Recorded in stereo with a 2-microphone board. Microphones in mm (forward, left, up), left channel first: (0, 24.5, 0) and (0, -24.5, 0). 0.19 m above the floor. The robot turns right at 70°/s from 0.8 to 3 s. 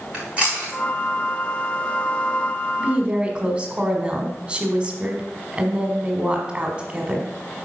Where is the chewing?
25° right (ahead or behind), 4.5 m.